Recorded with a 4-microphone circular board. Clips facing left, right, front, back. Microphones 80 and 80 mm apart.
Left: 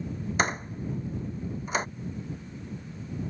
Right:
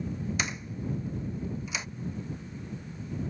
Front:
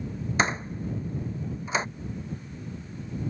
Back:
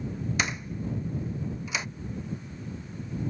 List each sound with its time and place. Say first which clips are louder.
0.4 s a door slam: left 6 dB, front 8 dB; 50° left